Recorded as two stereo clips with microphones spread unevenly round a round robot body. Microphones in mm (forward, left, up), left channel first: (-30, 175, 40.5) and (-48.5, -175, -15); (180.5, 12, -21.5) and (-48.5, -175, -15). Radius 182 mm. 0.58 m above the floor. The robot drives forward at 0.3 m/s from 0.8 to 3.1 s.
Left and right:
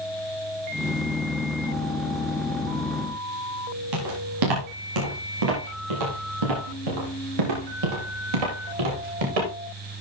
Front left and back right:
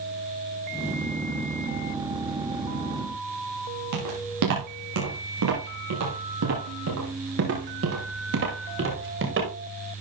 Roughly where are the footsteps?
Behind right.